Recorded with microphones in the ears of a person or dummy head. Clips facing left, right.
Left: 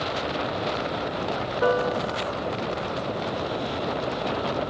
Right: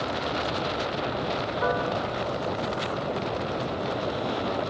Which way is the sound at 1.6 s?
45° left (ahead or behind).